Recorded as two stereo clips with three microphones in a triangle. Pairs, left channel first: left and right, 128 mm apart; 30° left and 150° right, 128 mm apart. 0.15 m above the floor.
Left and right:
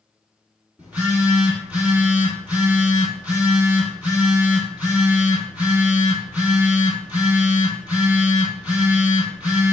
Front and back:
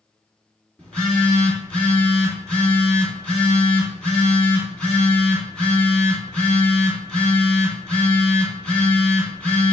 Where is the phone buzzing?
35° right, 1.5 m.